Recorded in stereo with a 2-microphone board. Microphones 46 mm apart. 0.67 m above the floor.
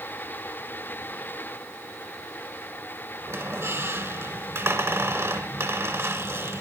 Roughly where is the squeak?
Right.